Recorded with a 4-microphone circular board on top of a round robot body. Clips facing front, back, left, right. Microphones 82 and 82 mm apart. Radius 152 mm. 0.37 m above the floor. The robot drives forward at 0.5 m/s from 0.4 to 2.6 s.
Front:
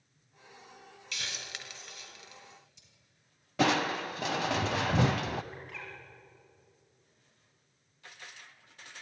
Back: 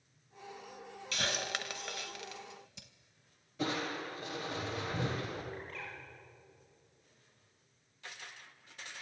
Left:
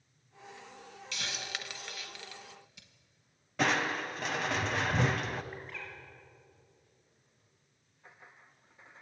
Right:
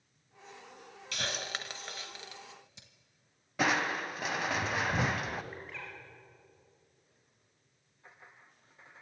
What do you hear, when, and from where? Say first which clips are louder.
1.1 s a hiss: back 7 dB, right 3 dB; 130° right, 0.8 m; by 2.9 s 155° right, 1.4 m
3.6 s crushing: front 8 dB, even; 5° right, 0.6 m
5.5 s a bird: even, even; straight ahead, 5.5 m